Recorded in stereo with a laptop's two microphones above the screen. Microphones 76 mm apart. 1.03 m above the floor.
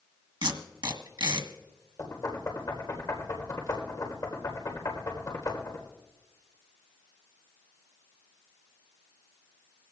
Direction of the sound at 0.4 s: 80° right.